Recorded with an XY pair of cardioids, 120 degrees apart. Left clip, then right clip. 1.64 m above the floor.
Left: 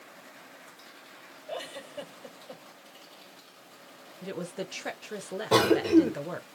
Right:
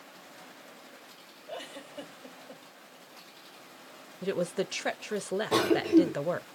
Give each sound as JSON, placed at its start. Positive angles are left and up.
{"t": 1.5, "sound": "a giggle", "azimuth_deg": 20, "distance_m": 3.5}
{"t": 4.2, "sound": "a woman speaking", "azimuth_deg": -30, "distance_m": 0.9}
{"t": 5.5, "sound": "a cough", "azimuth_deg": 30, "distance_m": 2.0}